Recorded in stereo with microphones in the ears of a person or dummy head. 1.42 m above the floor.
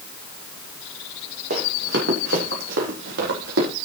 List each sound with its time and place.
1.5 s running footsteps: 60° right (ahead or behind), 3 m; by 3.7 s 70° right (ahead or behind), 5 m